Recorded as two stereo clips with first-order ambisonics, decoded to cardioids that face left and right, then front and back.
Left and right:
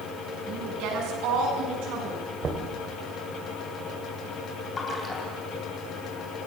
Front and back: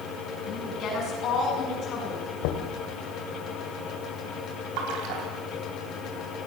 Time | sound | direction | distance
0.5 | a woman speaking | 55° right | 7.5 m
2.4 | knocking | 20° right | 2.5 m
4.8 | a splash | 160° left | 3.5 m